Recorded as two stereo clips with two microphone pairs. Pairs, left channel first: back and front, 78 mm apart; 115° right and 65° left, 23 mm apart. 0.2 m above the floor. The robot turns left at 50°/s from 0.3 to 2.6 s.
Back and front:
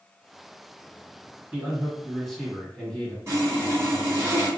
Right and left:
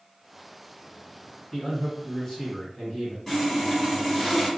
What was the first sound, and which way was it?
A man speaking, 55° right.